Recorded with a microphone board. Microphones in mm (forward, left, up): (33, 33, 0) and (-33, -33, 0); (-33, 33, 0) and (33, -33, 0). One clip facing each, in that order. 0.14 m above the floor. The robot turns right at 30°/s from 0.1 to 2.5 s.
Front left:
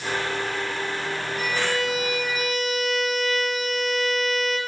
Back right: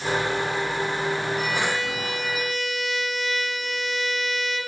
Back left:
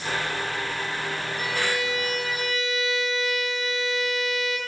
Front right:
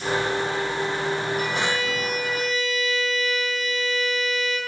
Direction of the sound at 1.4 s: 140° left.